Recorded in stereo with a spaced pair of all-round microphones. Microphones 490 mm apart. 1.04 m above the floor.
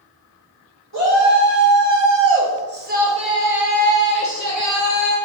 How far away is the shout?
About 1.8 m.